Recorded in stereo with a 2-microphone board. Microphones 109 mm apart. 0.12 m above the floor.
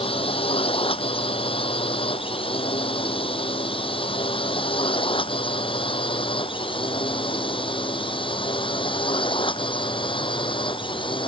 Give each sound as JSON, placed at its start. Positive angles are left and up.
{"t": 0.0, "sound": "a drone", "side_deg": 55}